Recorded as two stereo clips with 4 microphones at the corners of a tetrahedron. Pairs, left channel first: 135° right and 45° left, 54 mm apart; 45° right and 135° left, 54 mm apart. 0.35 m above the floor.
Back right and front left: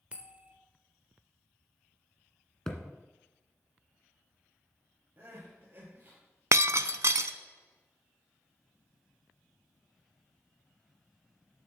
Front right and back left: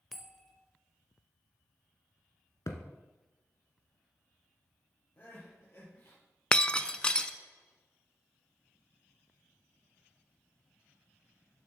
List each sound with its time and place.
0.1 s a bell: 40° left, 1.0 m
2.7 s a thud: 55° right, 1.6 m
5.2 s crying: straight ahead, 4.5 m
6.5 s breaking glass: 30° left, 0.5 m